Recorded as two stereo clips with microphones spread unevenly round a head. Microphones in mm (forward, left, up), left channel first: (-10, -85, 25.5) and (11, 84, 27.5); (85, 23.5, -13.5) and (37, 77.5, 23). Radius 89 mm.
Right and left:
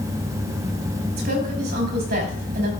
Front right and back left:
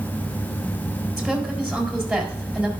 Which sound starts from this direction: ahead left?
A woman speaking, at 1.2 s.